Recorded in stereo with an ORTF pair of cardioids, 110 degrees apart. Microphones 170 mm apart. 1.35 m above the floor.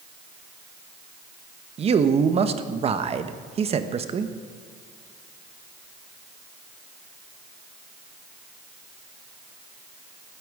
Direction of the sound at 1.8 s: 35° right.